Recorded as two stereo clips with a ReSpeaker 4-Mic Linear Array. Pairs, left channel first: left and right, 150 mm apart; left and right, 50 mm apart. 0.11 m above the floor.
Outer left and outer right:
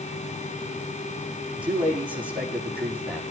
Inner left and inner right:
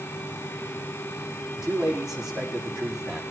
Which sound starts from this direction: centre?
A man speaking, at 1.5 s.